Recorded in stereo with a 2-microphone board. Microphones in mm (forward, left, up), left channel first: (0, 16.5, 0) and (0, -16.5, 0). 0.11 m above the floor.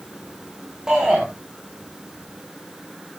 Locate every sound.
0.9 s a shout: 20° right (ahead or behind), 8.5 m